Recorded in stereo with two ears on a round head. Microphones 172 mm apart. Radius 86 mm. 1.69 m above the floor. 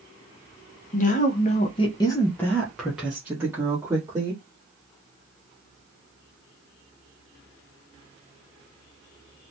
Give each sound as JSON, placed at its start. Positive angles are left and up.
{"t": 0.9, "sound": "a woman speaking", "side_deg": 40, "distance_m": 0.8}